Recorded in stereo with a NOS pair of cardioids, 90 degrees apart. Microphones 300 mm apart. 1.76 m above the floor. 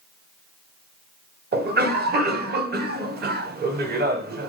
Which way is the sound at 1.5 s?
35° right.